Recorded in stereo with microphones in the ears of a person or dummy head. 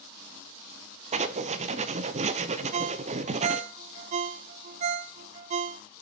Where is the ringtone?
40° right (ahead or behind), 0.6 m.